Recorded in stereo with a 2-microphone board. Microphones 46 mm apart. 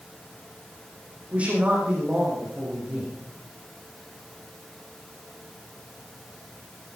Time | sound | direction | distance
1.3 | a man speaking | 25° right (ahead or behind) | 5.5 m